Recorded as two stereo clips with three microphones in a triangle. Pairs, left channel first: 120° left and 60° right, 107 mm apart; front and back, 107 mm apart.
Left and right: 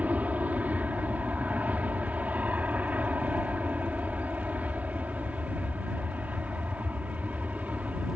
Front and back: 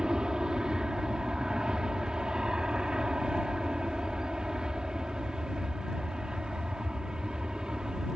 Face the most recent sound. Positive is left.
turn(degrees=-110)